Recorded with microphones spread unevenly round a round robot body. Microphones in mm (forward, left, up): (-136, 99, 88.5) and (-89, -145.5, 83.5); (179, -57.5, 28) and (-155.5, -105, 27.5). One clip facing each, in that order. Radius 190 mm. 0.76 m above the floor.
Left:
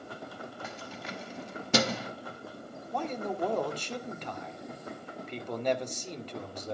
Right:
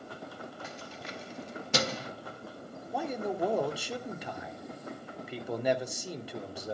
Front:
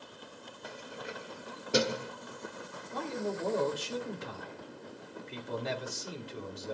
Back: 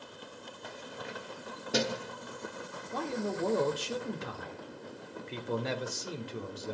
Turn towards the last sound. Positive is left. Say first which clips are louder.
# right 1 dB, back 1 dB
turn(degrees=-160)